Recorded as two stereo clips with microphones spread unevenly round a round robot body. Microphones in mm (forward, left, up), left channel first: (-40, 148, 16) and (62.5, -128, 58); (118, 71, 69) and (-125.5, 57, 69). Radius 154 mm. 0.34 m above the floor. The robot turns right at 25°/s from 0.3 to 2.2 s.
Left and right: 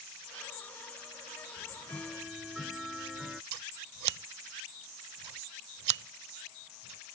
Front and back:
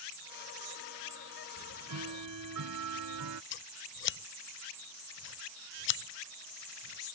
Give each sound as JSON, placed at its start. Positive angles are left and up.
{"t": 1.6, "sound": "ticking", "azimuth_deg": -175}
{"t": 3.5, "sound": "scissors", "azimuth_deg": -40}